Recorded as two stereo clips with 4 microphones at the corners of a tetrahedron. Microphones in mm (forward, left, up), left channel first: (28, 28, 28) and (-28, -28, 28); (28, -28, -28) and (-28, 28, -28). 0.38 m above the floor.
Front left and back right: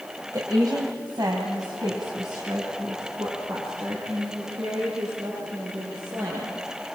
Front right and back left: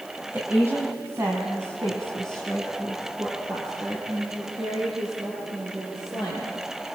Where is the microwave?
I don't hear a microwave.